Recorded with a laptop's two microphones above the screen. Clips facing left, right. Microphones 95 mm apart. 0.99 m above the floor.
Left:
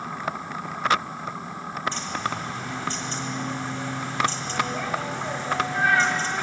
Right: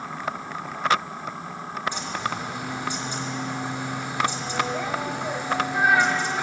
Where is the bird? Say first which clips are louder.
Even; 15° right (ahead or behind), 1.2 m.